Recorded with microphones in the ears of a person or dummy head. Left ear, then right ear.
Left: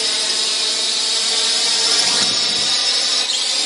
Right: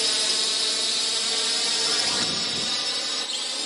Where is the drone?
5° left (ahead or behind); by 3.7 s 30° left (ahead or behind).